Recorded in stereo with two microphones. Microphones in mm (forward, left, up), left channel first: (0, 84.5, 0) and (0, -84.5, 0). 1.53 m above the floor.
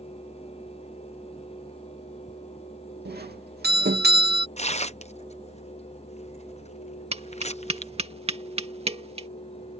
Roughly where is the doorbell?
Right.